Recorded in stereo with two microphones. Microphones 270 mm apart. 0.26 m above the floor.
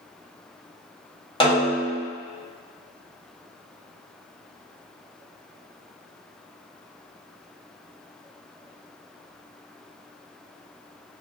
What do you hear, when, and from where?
1.4 s a snare drum: 20° left (ahead or behind), 1.2 m